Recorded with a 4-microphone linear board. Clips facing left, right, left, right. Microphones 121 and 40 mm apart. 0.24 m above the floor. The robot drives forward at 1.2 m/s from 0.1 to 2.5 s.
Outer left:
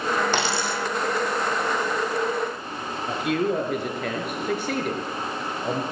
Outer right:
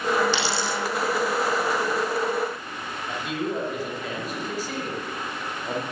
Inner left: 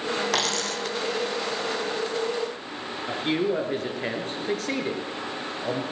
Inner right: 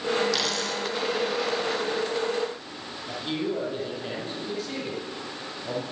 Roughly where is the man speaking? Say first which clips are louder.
Outer left 5 dB, inner left 4 dB; left.